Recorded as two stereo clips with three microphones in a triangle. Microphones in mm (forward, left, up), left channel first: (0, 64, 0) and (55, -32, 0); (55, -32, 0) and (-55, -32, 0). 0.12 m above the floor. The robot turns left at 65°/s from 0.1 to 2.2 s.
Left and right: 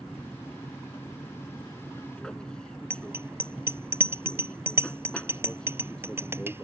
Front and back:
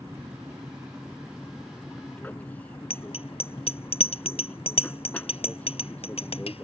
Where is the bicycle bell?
5° left.